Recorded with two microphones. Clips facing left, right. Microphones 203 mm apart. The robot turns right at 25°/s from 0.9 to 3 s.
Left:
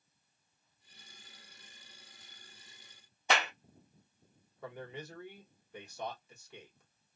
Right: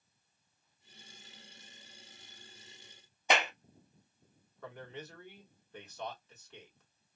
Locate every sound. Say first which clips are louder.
3.3 s a clap: right 2 dB; 15° right (ahead or behind), 0.9 m
4.6 s a man speaking: left 2 dB; 10° left (ahead or behind), 1.4 m